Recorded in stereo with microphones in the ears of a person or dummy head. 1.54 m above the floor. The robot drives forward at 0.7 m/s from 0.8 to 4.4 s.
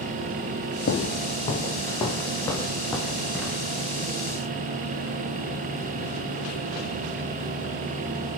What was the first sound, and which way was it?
Footsteps, 40° left (ahead or behind).